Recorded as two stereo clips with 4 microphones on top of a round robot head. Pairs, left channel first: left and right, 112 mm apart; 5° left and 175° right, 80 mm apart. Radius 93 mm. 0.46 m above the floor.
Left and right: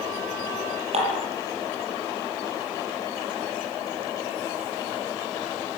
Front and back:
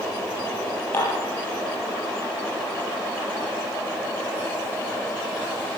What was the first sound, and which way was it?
Dishes clattering, 65° right.